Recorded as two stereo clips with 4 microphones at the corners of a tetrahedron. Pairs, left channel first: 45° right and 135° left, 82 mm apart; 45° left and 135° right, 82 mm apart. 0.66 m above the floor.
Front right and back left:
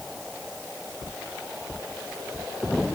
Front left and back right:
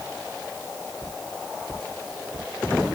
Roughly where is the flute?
I don't hear a flute.